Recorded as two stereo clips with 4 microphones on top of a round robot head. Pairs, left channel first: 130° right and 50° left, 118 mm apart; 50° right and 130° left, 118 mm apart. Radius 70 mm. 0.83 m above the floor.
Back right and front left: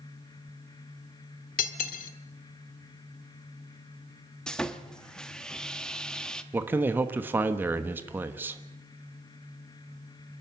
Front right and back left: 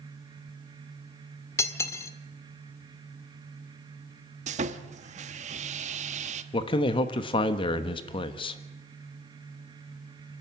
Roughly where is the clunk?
No clunk in this recording.